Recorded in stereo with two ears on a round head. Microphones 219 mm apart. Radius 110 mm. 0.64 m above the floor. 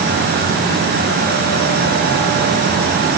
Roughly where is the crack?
No crack in this recording.